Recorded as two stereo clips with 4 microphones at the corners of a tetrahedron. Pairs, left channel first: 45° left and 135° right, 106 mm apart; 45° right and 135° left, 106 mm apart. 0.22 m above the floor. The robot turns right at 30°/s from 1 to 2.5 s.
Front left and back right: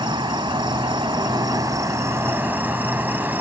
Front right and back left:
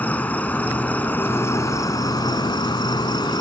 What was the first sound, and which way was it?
An insect, 115° right.